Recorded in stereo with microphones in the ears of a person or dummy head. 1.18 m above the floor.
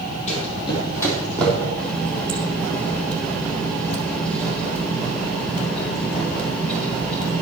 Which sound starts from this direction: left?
Running footsteps, at 0.3 s.